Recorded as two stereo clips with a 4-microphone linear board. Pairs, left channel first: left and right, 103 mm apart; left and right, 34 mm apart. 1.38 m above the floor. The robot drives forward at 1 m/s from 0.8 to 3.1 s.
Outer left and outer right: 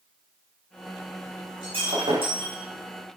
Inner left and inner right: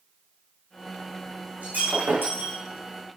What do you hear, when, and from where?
1.6 s breaking glass: 60° right (ahead or behind), 5.5 m; by 2.6 s 70° right (ahead or behind), 5.5 m